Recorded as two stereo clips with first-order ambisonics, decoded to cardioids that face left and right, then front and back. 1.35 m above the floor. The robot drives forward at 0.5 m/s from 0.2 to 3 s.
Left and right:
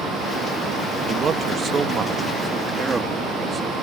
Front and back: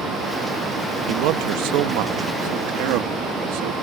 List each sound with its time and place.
1.1 s a man speaking: 150° right; by 3.7 s 165° right